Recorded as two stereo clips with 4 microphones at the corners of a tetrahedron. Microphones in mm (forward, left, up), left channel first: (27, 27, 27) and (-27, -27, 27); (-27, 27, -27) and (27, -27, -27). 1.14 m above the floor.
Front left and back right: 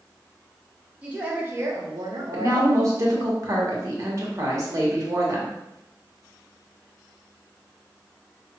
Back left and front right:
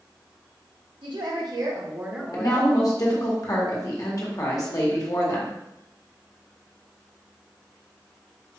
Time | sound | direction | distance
1.0 | a woman speaking | 60° right | 1.4 m
2.3 | a woman speaking | 175° left | 1.1 m